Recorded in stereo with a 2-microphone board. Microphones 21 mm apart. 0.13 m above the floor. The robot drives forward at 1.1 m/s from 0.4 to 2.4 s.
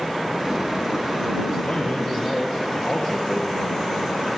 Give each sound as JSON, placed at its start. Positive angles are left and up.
{"t": 1.6, "sound": "a man speaking", "side_deg": 65, "distance_m": 4.0}